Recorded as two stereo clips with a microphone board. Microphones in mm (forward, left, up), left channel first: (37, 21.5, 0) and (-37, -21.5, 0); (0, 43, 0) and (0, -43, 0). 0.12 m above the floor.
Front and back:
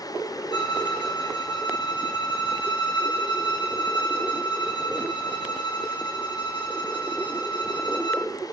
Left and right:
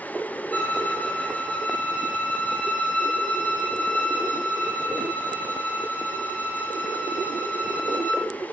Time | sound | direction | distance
0.5 | a violin | 20° left | 0.6 m